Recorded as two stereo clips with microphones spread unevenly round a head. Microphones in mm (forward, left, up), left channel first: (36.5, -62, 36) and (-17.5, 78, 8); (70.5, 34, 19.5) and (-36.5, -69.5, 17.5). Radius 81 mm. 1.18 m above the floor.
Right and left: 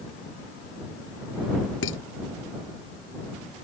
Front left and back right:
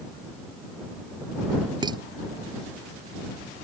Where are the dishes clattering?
75° right.